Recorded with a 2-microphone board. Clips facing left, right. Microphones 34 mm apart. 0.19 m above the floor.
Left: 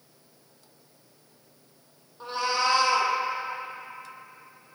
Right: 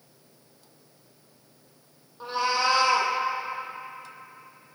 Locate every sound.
2.2 s a cat meowing: 5° right (ahead or behind), 1.2 m